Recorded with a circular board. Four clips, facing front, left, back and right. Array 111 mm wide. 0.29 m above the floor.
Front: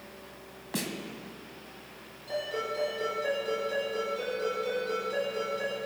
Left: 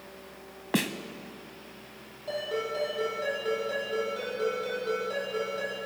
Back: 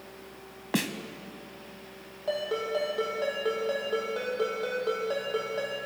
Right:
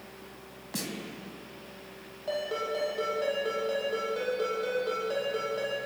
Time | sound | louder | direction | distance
0.7 | a snare drum | left 9 dB, back 5 dB | 125° left | 0.8 m
2.3 | a ringtone | even, back 4 dB | 165° right | 7 m